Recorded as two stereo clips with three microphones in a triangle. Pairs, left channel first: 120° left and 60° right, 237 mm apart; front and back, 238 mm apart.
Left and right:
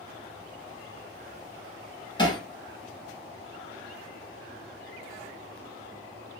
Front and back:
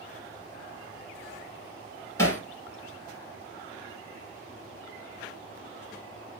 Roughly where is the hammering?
Left.